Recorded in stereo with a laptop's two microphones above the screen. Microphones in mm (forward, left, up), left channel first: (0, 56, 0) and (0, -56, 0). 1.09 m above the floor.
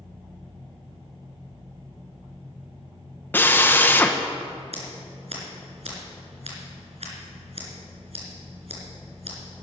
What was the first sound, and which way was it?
A drill, 20° left (ahead or behind).